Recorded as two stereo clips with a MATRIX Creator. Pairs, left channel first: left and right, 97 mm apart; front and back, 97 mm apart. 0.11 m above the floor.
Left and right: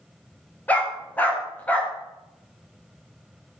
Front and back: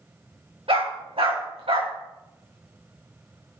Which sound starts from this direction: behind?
A dog barking, at 0.7 s.